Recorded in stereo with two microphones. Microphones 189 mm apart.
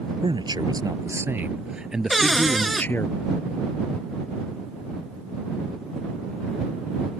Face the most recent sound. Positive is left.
turn(degrees=0)  # may be behind; listen again after turning